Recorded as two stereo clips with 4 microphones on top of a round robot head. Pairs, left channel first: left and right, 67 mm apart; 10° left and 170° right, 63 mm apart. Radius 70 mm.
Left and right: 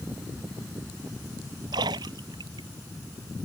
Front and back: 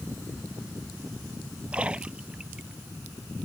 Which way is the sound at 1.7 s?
95° right.